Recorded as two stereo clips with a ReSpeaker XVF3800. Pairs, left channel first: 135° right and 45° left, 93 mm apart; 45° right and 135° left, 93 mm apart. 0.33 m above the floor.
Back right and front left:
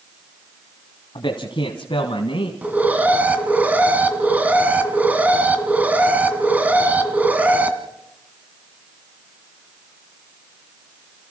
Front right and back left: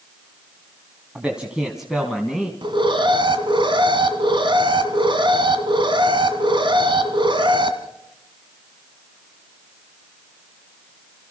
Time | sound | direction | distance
1.1 | a man speaking | 150° right | 2 m
2.6 | an alarm | 120° left | 1.8 m